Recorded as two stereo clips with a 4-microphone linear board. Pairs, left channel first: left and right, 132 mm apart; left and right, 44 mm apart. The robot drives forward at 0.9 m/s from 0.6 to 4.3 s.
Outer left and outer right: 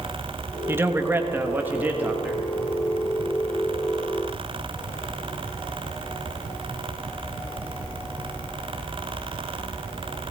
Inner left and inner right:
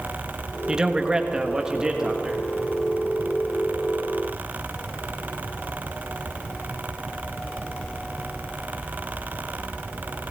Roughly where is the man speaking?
Centre.